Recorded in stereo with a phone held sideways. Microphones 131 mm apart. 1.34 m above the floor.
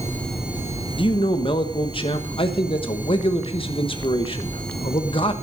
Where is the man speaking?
45° left (ahead or behind), 1.1 m.